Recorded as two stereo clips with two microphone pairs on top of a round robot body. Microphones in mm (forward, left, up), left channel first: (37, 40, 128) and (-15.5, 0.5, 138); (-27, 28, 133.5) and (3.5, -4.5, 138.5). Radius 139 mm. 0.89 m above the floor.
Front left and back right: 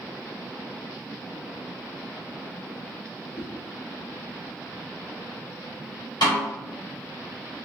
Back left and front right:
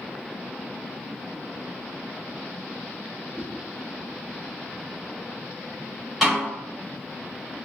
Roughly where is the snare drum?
Ahead left.